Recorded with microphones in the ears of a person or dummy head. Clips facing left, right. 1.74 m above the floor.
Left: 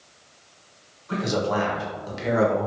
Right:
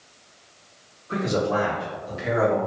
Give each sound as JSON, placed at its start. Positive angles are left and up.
{"t": 1.1, "sound": "a man speaking", "side_deg": 80, "distance_m": 1.8}